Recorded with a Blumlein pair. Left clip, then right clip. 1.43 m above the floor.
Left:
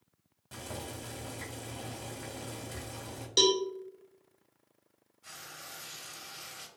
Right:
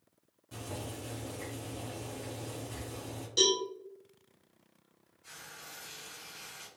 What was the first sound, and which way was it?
Boiling, 70° left.